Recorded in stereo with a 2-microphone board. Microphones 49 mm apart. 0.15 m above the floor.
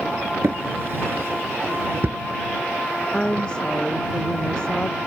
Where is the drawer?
60° right (ahead or behind).